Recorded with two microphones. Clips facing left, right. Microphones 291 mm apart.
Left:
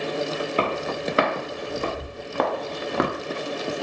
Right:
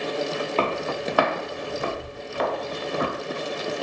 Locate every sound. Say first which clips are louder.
0.6 s footsteps: right 1 dB; 15° left (ahead or behind), 1.3 m; by 3.1 s 85° left, 0.8 m